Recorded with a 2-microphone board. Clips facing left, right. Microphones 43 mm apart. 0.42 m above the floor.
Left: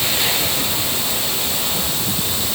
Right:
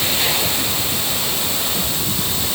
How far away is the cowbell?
No cowbell in this recording.